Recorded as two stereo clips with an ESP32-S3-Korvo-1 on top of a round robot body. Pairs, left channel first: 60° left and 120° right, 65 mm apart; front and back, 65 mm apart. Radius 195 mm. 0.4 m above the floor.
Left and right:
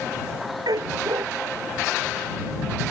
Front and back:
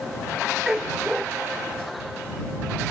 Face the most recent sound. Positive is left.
turn(degrees=-95)